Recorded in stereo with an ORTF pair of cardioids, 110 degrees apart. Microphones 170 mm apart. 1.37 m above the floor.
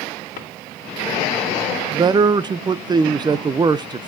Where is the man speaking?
25° right, 0.7 m.